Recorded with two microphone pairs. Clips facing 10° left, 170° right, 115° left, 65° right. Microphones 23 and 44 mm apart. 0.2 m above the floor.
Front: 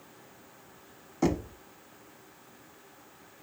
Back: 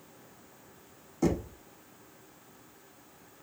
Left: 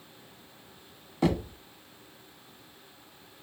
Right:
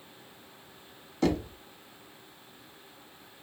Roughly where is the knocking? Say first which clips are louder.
Front 1 dB, even; ahead left.